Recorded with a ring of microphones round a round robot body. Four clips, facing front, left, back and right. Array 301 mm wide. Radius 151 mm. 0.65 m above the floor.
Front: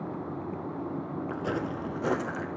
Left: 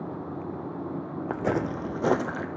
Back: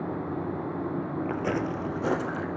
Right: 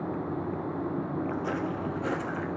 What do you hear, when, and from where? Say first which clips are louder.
1.3 s footsteps: left 3 dB, back 2 dB; 105° left, 0.9 m; by 2.5 s 85° left, 1.4 m